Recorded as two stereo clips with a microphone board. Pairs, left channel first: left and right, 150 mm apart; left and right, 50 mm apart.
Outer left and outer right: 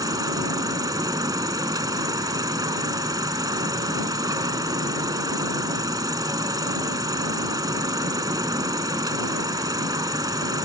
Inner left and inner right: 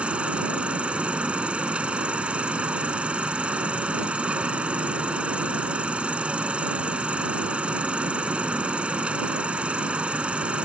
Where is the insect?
25° right (ahead or behind).